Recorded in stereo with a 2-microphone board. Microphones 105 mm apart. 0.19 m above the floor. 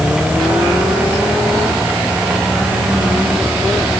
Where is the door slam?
I don't hear a door slam.